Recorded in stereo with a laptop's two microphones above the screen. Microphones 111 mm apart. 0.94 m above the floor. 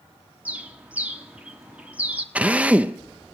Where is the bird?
15° right (ahead or behind), 1.3 m.